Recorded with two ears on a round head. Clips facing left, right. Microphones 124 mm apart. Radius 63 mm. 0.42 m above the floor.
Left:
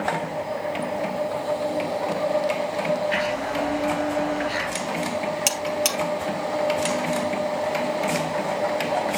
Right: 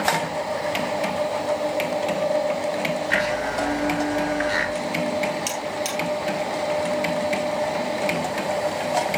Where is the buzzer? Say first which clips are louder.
Left 2 dB; 70° left (ahead or behind), 2.5 m.